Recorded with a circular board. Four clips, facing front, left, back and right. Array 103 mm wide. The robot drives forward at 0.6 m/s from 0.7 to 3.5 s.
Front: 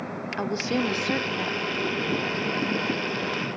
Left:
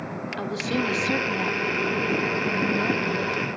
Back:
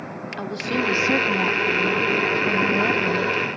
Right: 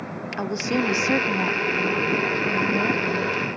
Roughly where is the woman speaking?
Right.